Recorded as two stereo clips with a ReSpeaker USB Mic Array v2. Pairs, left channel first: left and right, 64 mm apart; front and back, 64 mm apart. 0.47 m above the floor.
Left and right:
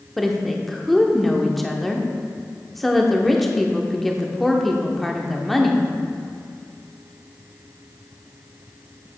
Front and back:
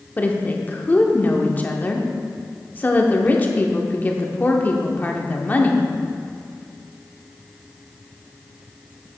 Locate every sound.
0.2 s a woman speaking: 5° left, 0.7 m